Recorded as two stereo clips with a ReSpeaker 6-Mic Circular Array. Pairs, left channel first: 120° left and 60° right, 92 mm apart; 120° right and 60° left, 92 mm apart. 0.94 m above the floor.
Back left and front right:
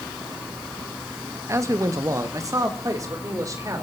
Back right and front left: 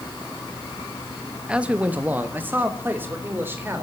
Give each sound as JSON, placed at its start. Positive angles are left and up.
{"t": 1.5, "sound": "a man speaking", "azimuth_deg": -15, "distance_m": 0.9}